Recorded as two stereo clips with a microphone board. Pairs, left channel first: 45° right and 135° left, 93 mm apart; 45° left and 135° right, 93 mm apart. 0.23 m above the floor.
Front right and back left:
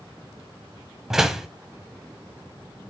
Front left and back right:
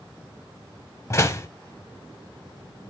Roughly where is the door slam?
Ahead left.